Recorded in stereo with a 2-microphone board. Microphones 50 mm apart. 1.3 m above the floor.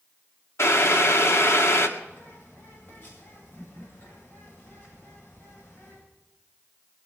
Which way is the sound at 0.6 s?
65° left (ahead or behind).